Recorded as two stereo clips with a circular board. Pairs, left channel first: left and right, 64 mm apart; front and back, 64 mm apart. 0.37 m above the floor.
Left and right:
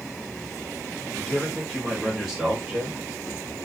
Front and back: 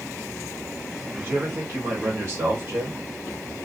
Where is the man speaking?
145° left, 1.1 m; by 3.0 s 145° right, 1.3 m.